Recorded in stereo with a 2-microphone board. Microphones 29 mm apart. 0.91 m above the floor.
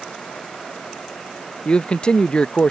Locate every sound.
1.6 s a man speaking: 35° left (ahead or behind)